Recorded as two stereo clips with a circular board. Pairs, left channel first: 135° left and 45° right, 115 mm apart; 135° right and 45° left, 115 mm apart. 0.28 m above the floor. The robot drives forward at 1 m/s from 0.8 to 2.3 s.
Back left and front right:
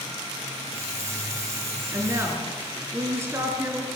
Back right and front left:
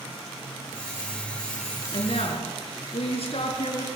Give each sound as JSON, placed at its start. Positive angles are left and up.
{"t": 1.9, "sound": "a woman speaking", "azimuth_deg": -105, "distance_m": 4.0}